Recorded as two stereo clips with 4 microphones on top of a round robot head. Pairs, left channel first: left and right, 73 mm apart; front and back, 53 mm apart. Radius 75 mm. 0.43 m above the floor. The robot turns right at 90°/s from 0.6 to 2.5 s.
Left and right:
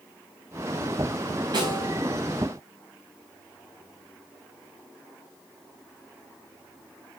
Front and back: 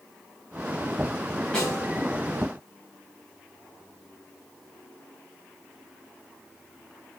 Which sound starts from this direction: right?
A snare drum, at 1.5 s.